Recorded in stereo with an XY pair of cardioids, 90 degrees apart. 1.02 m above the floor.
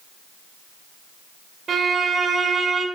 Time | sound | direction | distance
1.7 | a violin | 50° right | 2.5 m